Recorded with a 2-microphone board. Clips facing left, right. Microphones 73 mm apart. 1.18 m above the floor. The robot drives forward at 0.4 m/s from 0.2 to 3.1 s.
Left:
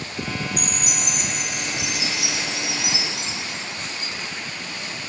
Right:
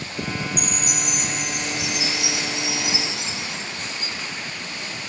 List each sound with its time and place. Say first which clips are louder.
0.6 s a chime: right 1 dB; 80° left, 4.5 m; by 4.1 s 75° left (ahead or behind), 5 m